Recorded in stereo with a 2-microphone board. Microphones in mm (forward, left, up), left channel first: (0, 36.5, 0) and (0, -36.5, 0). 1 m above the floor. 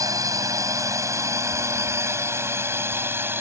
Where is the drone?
55° right (ahead or behind); by 3.4 s 30° right (ahead or behind).